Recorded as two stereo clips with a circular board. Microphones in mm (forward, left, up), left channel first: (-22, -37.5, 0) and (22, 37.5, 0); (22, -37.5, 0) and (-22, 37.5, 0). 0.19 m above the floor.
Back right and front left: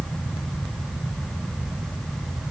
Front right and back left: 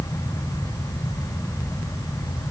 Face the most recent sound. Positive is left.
No sound to turn to.